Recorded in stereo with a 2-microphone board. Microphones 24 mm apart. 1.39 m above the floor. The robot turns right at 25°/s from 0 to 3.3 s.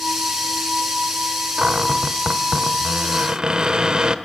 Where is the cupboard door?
110° right, 1.4 m; by 4.2 s 70° right, 1.4 m.